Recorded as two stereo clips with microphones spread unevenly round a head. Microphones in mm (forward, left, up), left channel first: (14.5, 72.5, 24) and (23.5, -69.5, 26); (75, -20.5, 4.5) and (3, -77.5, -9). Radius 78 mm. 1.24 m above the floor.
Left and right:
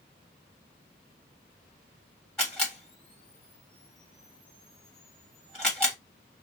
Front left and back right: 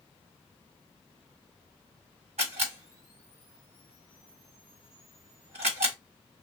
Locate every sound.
2.4 s a camera shutter: straight behind, 1.6 m